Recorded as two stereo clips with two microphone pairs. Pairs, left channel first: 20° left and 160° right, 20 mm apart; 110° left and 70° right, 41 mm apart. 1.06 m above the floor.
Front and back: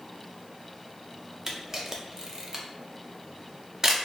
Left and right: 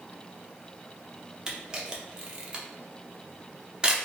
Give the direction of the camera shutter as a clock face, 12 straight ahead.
4 o'clock.